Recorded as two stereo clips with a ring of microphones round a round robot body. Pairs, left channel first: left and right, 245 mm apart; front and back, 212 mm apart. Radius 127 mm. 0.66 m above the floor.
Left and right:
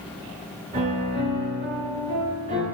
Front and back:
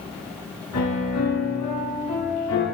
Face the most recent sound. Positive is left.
turn(degrees=-25)